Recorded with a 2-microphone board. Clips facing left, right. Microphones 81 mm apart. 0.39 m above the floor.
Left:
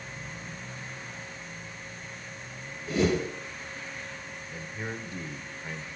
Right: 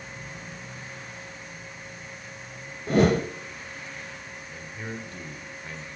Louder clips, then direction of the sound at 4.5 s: Even; 15° left (ahead or behind).